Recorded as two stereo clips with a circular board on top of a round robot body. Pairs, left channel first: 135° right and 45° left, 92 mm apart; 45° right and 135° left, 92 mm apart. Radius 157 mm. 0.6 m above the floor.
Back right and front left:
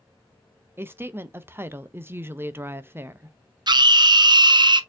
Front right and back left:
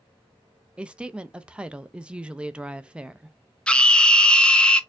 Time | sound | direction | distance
0.8 | a woman speaking | 70° left | 0.6 m
3.7 | a scream | 35° left | 0.7 m